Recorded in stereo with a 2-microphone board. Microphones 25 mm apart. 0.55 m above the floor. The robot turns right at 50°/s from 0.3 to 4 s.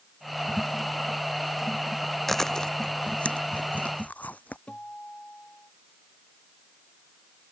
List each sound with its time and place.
2.3 s chewing: 10° left (ahead or behind); by 4.6 s 85° left
4.7 s a guitar: 55° left (ahead or behind)